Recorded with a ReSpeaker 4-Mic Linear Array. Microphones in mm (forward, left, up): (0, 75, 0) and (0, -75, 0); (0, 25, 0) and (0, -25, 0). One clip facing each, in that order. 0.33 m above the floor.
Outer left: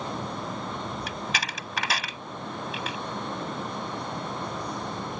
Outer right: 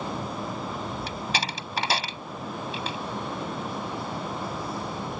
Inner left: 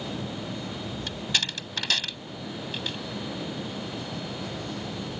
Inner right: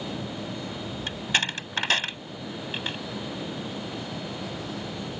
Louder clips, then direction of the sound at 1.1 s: Outer right 2 dB, inner right 4 dB; 30° right (ahead or behind).